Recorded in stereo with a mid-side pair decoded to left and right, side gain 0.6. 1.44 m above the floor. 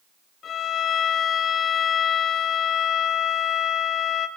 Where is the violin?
45° left, 1.4 m.